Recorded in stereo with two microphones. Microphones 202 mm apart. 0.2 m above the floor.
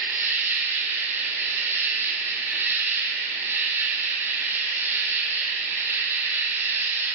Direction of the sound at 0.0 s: 10° right (ahead or behind).